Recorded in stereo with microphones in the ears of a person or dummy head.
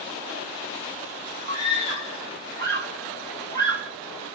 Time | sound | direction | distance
1.5 | a scream | 50° right (ahead or behind) | 1.9 m